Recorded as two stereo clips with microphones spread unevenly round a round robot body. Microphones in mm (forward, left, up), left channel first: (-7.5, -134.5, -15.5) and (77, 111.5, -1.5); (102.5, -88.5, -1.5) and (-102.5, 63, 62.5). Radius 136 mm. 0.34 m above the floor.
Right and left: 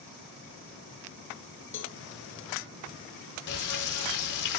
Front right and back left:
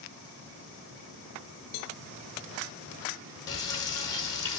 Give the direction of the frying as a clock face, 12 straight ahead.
4 o'clock.